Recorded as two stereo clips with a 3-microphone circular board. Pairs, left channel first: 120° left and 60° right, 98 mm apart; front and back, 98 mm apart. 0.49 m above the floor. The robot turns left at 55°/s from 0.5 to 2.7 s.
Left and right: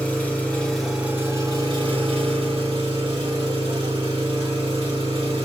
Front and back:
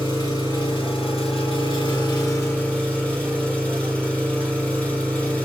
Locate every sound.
0.0 s an engine running: 45° left, 1.6 m; by 5.5 s 80° right, 1.6 m